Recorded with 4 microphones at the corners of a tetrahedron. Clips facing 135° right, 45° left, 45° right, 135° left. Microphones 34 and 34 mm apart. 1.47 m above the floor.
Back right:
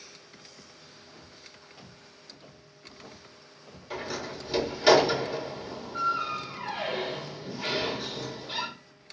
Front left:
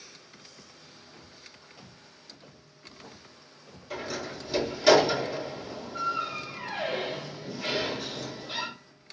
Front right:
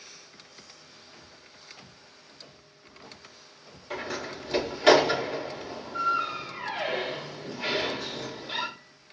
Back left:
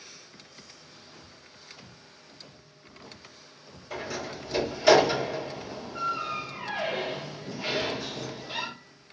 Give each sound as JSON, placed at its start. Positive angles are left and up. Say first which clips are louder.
{"t": 1.1, "sound": "footsteps", "louder": "even, even", "azimuth_deg": -35, "distance_m": 1.8}
{"t": 3.9, "sound": "a door slam", "louder": "even, front right 1 dB", "azimuth_deg": -60, "distance_m": 2.5}